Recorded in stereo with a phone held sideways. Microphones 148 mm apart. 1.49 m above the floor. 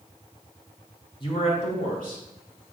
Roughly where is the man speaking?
Left.